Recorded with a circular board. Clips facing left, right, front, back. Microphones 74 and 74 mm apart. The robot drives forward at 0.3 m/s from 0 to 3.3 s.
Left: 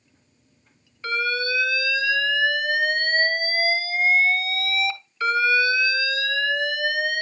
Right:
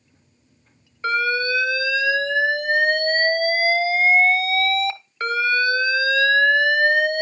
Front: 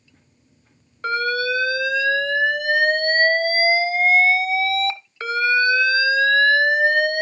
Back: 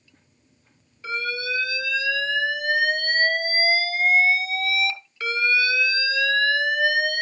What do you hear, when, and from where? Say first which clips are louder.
1.0 s an alarm: right 4 dB, front 7 dB; 30° right, 1.4 m; by 7.2 s 50° right, 0.9 m